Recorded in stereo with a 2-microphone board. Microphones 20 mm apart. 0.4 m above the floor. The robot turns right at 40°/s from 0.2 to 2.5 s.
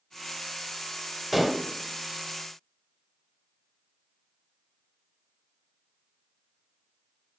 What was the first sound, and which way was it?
Dishes clattering, 5° right (ahead or behind).